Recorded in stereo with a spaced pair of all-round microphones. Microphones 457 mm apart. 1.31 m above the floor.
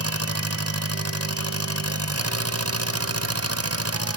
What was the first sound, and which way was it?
An engine running, 30° right (ahead or behind).